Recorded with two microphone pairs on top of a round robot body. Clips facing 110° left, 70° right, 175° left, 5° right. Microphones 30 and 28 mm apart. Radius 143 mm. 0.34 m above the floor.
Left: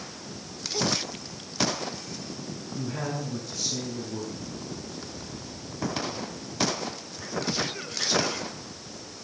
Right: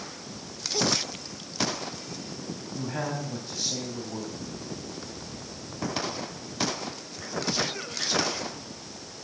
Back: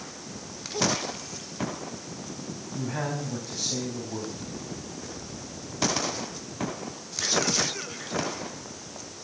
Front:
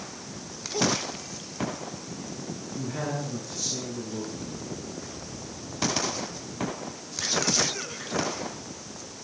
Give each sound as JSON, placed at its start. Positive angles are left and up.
{"t": 2.7, "sound": "a man speaking", "azimuth_deg": -130, "distance_m": 4.0}